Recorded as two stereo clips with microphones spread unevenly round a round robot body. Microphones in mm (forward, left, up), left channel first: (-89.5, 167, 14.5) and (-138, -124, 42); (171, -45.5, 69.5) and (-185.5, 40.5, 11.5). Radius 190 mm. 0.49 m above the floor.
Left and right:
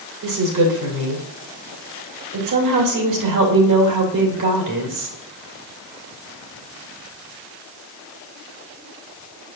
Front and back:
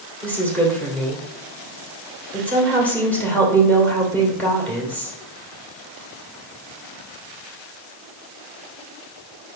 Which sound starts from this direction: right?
A woman speaking, at 0.2 s.